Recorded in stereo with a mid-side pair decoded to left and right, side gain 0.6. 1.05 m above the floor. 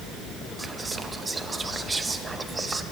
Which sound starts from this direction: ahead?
Whispering, at 0.6 s.